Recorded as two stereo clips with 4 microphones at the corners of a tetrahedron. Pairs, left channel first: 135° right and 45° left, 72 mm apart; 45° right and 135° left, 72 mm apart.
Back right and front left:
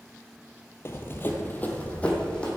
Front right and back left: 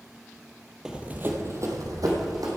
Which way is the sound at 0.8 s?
150° right.